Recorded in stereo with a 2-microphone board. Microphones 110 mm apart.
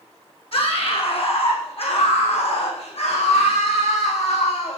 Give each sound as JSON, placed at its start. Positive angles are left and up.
{"t": 0.5, "sound": "a scream", "side_deg": 55, "distance_m": 7.5}